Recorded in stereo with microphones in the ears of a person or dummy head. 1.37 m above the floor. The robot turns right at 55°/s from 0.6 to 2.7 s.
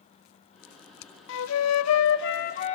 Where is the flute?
65° left, 0.8 m; by 2.8 s 140° left, 0.8 m.